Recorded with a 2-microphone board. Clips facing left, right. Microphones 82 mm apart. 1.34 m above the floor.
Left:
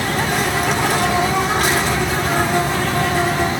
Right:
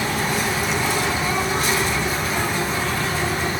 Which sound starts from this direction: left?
An insect, at 0.0 s.